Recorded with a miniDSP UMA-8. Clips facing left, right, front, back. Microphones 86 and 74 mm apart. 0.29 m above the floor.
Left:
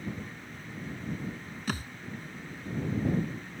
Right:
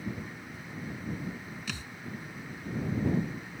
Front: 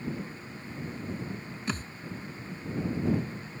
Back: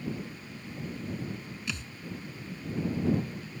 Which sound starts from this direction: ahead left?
A thud, at 1.7 s.